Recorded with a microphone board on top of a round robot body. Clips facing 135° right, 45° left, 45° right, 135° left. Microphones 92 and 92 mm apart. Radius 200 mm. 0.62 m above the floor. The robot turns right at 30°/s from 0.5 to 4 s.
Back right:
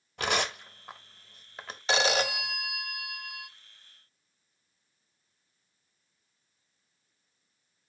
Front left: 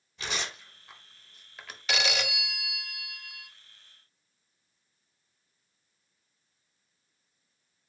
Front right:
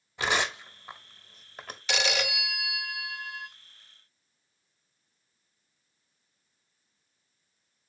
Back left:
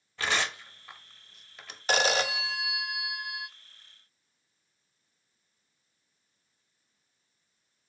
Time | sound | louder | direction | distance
0.2 | tearing paper | back right 7 dB, front right 2 dB | 115° right | 1.0 m
1.9 | a phone ringing | back right 5 dB, back left 4 dB | 175° left | 0.6 m